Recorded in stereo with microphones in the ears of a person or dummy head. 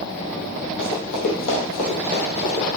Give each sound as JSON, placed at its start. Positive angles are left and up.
{"t": 0.8, "sound": "running footsteps", "side_deg": 60, "distance_m": 3.0}